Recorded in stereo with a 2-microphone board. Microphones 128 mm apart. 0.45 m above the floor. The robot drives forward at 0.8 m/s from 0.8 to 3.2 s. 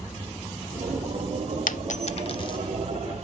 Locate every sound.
1.7 s a dropped coin: 85° left, 0.6 m; by 2.6 s 35° left (ahead or behind), 1.0 m